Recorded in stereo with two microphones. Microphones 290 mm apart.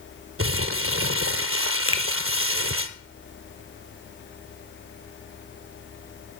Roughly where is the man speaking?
I don't hear a man speaking.